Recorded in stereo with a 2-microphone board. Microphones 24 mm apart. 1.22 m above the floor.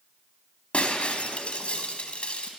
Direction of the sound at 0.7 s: 60° left (ahead or behind).